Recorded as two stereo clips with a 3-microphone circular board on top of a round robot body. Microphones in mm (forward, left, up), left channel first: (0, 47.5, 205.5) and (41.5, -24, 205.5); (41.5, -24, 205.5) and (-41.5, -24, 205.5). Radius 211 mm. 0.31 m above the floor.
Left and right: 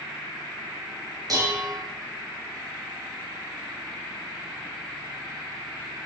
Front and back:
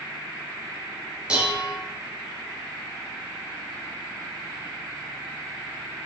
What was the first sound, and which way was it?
Dishes clattering, 100° right.